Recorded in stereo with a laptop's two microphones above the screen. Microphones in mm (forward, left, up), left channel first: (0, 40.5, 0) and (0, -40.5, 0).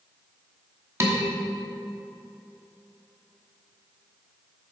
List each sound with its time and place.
1.0 s dishes clattering: 35° right (ahead or behind), 1.1 m